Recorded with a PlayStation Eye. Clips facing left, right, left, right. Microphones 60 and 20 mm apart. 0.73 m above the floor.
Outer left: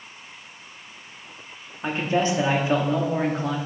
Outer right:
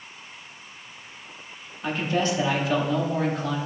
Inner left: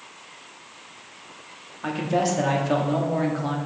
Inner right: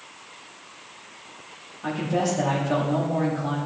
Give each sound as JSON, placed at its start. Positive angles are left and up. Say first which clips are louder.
{"t": 1.8, "sound": "a man speaking", "louder": "outer left 2 dB, inner left 1 dB", "side_deg": 25, "distance_m": 1.2}